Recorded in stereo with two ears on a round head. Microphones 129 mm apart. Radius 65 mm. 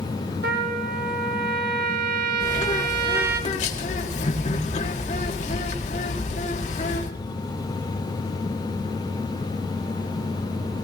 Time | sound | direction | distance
0.4 | a trumpet | 80° right | 1.9 m
2.4 | a bird | 55° left (ahead or behind) | 2 m